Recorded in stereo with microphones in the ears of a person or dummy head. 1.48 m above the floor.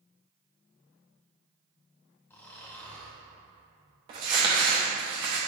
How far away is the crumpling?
About 0.9 m.